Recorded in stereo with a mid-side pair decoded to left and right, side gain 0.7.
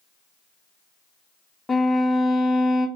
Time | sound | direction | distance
1.7 | a violin | 15° left | 0.5 m